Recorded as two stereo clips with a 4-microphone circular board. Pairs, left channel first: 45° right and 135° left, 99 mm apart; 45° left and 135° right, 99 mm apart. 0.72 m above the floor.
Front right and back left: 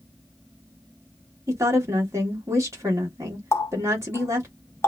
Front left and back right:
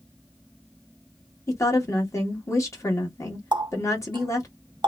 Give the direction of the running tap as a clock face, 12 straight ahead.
3 o'clock.